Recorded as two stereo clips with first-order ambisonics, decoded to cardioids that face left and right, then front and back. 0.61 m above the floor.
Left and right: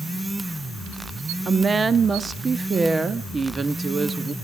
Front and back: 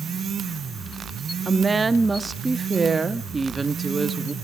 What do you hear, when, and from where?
1.4 s a woman speaking: 130° right, 0.6 m